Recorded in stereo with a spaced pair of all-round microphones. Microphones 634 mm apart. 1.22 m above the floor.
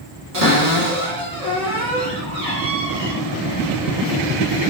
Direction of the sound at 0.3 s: 75° right (ahead or behind).